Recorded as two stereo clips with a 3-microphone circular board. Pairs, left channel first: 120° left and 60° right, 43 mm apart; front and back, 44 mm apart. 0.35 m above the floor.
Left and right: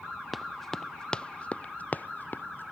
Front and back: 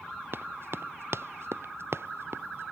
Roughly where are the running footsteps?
Behind right.